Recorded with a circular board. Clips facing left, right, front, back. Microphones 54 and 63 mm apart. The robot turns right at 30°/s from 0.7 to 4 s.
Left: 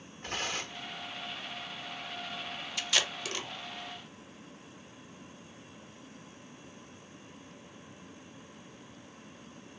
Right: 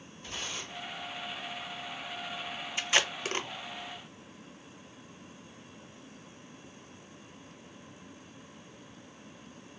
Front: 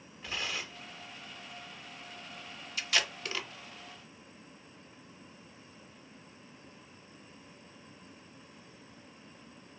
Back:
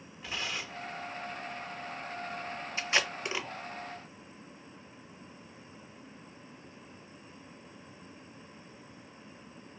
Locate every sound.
0.2 s tearing paper: 95° left, 0.9 m; by 0.9 s 100° left, 0.9 m
2.8 s tape being pulled: 135° right, 0.5 m; by 3.5 s 115° right, 0.5 m